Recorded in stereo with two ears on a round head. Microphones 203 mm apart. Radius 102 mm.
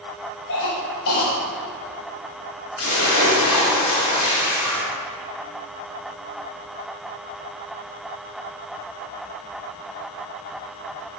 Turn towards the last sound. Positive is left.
turn(degrees=75)  # may be behind; listen again after turning